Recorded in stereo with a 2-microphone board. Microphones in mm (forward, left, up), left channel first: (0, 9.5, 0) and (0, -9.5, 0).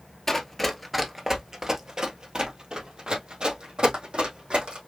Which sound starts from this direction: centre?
Running footsteps, at 0.3 s.